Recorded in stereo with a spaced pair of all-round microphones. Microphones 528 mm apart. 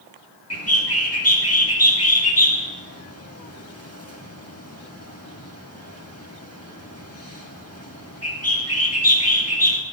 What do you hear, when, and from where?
0.5 s a bird: 25° left (ahead or behind), 1.7 m